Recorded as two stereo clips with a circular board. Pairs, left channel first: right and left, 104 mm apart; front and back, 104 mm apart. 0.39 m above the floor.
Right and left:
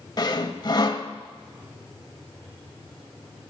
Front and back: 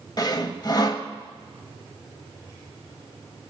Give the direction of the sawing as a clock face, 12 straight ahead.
2 o'clock.